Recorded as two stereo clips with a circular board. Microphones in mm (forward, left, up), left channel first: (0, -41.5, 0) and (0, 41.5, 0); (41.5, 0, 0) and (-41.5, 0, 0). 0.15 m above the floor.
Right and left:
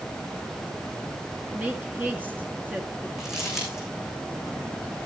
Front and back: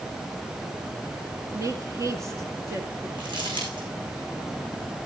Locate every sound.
1.5 s a woman speaking: 150° left, 2.0 m
3.2 s crumpling: 175° left, 5.5 m